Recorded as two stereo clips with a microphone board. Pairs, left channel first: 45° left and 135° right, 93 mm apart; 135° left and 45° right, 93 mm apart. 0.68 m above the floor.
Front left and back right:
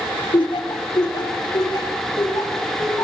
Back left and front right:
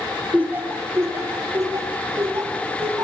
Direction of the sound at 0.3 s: 25° left.